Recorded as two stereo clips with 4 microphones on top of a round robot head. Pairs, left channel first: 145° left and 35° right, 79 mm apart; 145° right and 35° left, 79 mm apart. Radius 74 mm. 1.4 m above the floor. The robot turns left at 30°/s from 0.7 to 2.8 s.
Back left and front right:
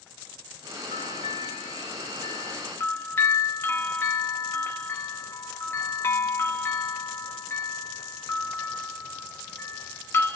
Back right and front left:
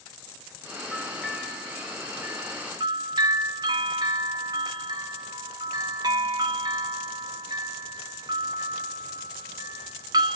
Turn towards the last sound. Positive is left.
turn(degrees=80)